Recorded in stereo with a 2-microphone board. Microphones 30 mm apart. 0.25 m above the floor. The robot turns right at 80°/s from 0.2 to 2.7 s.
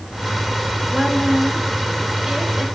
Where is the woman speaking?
145° right, 1.2 m; by 2.6 s 5° right, 1.2 m.